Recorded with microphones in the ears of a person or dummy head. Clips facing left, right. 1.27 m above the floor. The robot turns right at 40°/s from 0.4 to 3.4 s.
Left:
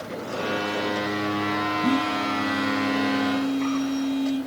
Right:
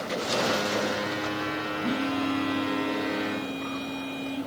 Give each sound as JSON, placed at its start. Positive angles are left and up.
{"t": 1.8, "sound": "a phone buzzing", "azimuth_deg": 105, "distance_m": 1.8}